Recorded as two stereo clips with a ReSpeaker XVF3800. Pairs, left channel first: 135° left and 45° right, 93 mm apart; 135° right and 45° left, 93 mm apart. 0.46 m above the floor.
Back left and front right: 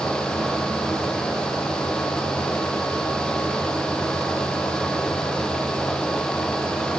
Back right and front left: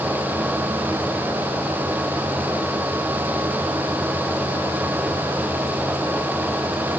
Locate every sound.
Only background noise.